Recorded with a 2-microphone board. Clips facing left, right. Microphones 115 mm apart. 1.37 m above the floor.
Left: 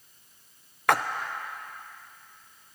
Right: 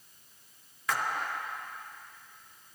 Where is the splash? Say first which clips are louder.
Left 8 dB; 60° left (ahead or behind), 0.5 m.